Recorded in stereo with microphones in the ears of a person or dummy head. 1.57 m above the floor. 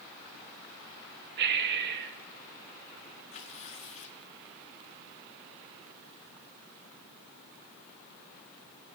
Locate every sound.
1.4 s breathing: 60° right (ahead or behind), 1.7 m
3.3 s tearing paper: 40° left (ahead or behind), 3 m